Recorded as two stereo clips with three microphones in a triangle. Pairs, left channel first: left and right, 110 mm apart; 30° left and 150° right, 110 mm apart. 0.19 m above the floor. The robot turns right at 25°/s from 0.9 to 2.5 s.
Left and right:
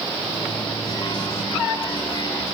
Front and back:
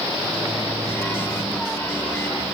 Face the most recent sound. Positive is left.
turn(degrees=170)